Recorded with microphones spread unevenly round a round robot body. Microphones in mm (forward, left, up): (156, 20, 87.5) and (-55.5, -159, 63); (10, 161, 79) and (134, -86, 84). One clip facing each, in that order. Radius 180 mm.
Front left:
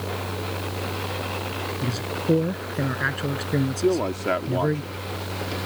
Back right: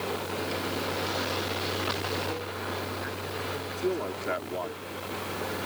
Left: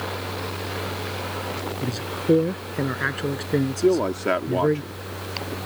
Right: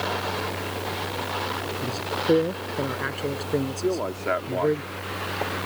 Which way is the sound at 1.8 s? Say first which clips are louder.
Front left 6 dB, left 2 dB; 55° left.